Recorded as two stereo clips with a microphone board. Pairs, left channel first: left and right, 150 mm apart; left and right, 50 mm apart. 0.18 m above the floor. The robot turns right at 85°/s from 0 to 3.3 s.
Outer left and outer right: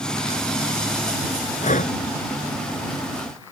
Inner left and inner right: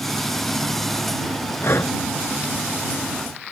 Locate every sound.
1.6 s breathing: 55° left (ahead or behind); by 1.9 s 65° left (ahead or behind)